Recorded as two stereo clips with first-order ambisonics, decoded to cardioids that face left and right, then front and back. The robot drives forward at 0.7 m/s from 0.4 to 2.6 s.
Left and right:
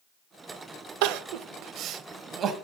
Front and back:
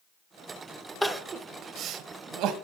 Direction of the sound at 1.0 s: 90° right.